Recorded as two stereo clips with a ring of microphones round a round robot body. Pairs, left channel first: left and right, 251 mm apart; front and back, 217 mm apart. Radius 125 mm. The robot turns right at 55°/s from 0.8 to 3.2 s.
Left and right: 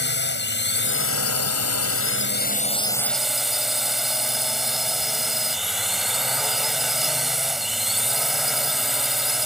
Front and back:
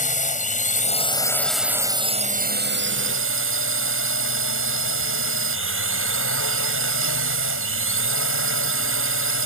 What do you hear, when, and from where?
0.0 s a drone: 50° left; by 9.5 s straight behind